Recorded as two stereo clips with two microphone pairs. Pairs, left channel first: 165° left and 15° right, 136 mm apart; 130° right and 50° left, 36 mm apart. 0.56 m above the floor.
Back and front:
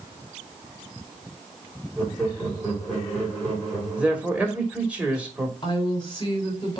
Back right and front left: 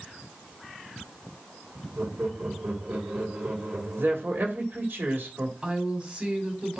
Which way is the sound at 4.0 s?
60° left.